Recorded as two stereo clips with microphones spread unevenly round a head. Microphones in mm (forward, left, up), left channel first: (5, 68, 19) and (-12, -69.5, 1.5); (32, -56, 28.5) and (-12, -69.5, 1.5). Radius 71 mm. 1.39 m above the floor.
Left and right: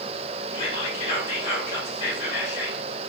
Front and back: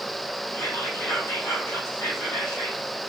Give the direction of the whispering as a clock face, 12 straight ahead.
11 o'clock.